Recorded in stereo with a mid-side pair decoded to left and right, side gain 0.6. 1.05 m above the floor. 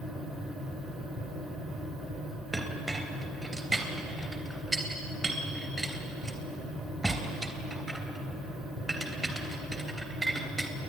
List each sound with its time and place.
0.0 s a fan: 50° right, 4 m
2.5 s a clink: 20° right, 3 m